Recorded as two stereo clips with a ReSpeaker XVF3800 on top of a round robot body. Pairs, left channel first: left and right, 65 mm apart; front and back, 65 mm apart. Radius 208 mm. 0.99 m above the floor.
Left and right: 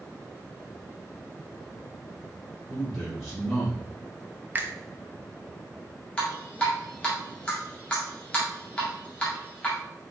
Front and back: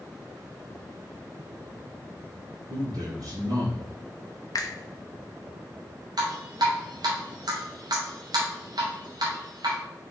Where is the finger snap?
30° right, 0.7 m.